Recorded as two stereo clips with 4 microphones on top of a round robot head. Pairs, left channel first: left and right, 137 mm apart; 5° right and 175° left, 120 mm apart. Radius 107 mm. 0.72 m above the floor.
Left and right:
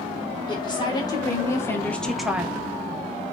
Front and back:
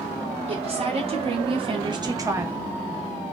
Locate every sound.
0.5 s a woman speaking: 145° left, 1.2 m; by 2.7 s 115° right, 0.6 m